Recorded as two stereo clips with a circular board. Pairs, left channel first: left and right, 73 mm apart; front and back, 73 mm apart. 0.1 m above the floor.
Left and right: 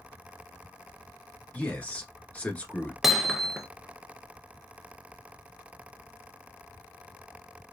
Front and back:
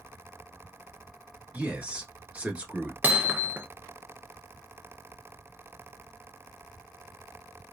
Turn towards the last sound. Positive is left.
turn(degrees=-175)